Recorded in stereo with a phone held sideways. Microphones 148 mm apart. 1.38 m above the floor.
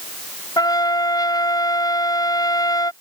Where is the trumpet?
25° left (ahead or behind).